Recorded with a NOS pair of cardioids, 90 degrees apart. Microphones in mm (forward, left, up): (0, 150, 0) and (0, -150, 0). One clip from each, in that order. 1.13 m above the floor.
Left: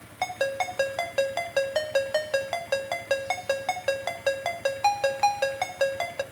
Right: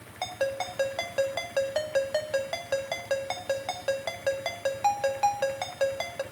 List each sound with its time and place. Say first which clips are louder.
0.2 s a ringtone: left 3 dB; 20° left, 1.4 m